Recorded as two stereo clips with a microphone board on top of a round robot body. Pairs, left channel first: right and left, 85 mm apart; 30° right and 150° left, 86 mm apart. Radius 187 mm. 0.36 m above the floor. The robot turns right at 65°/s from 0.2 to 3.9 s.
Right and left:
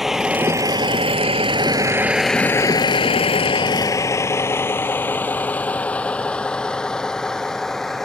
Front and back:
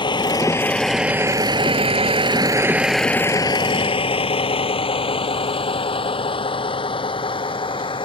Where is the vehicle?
Straight ahead; by 8.1 s 5° right.